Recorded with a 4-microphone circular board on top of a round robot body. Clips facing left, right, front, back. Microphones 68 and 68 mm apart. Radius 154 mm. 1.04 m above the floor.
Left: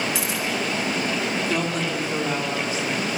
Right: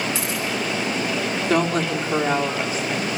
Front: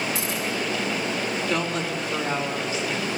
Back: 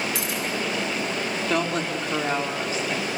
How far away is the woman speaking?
About 3 m.